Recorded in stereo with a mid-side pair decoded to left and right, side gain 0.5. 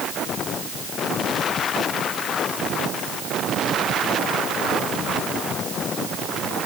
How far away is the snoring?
No snoring in this recording.